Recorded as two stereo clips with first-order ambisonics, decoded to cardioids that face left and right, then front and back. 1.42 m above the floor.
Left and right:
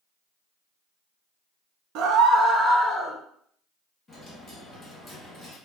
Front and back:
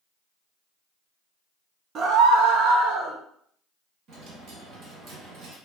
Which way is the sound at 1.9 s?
120° right.